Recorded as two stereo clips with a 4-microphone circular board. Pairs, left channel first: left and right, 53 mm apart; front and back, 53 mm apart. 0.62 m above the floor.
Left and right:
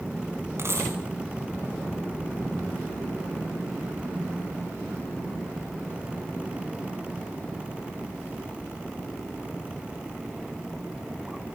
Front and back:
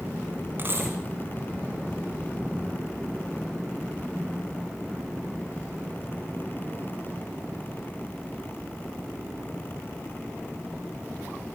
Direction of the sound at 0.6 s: 130° right.